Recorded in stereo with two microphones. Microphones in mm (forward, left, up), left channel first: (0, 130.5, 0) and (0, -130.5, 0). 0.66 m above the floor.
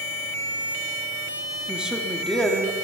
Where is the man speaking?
5° right (ahead or behind), 1.4 m; by 2.7 s 5° left (ahead or behind), 1.7 m.